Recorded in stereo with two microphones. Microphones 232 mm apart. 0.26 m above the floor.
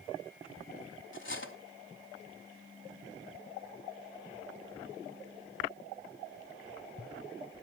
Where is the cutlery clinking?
55° left (ahead or behind), 1.1 m.